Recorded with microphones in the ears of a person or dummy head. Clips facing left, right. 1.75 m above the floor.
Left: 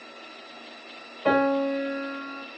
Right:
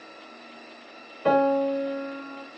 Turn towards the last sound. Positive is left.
turn(degrees=-25)  # may be behind; listen again after turning